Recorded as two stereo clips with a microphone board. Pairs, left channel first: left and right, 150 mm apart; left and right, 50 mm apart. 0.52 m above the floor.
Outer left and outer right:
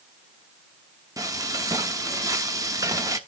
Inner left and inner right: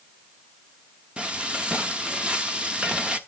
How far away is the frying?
About 0.8 m.